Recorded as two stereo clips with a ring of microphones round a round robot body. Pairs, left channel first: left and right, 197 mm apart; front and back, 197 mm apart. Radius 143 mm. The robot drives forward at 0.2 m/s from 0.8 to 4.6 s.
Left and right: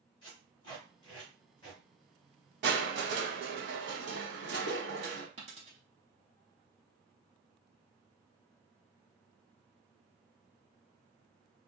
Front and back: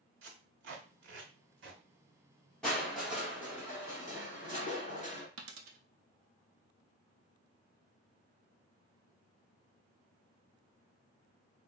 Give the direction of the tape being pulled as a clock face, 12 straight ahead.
7 o'clock.